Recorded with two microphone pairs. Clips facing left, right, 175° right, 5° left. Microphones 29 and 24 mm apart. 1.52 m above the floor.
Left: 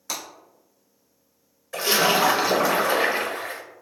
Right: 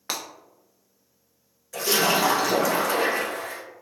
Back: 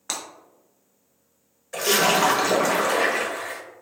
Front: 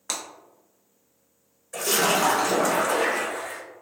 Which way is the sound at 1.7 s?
140° left.